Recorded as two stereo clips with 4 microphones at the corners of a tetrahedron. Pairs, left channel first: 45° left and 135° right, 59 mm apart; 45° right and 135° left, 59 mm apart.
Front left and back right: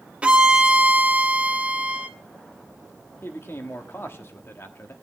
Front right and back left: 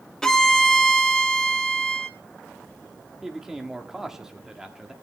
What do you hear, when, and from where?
0.2 s a violin: 110° right, 1.0 m
3.2 s a man speaking: 60° left, 1.3 m